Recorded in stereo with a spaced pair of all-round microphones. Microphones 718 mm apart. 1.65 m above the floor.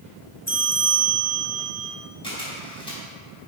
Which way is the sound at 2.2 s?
5° left (ahead or behind).